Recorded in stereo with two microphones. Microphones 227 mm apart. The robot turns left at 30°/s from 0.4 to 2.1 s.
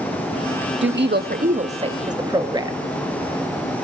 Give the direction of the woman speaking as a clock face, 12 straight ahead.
4 o'clock.